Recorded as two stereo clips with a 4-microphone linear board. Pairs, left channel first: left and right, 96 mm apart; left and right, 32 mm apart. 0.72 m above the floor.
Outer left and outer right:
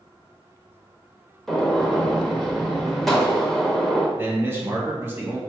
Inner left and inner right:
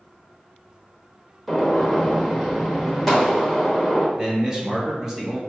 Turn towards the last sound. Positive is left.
turn(degrees=-20)  # may be behind; listen again after turning